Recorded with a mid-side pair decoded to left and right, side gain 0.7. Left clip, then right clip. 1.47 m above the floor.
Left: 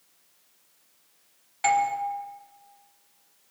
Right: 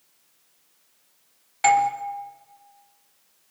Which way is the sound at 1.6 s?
25° right.